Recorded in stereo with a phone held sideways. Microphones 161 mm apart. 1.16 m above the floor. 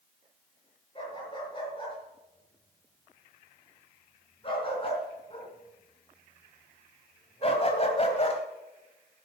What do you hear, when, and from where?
0.9 s a dog barking: 30° left (ahead or behind), 7 m; by 8.4 s 40° left (ahead or behind), 1.9 m